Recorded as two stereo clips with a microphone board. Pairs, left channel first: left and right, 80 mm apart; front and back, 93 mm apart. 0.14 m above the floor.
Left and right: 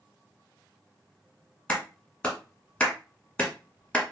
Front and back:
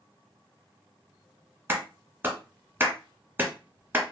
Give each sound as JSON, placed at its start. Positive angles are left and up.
{"t": 1.7, "sound": "a clap", "azimuth_deg": 150, "distance_m": 1.0}